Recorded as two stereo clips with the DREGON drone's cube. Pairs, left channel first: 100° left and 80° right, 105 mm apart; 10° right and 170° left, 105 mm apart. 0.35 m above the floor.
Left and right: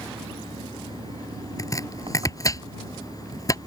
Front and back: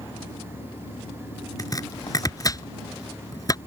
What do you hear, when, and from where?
0.0 s an engine running: 45° right
1.6 s chopping: 45° left